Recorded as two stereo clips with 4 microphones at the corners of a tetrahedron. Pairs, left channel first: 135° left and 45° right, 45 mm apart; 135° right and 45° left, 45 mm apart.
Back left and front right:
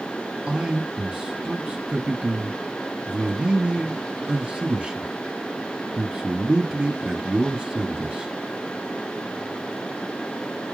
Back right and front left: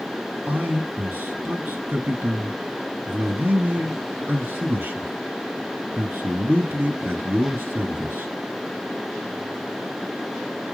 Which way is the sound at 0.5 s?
25° left.